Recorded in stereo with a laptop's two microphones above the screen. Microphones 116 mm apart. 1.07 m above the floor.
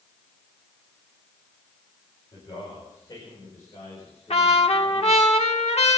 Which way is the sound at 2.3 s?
40° left (ahead or behind).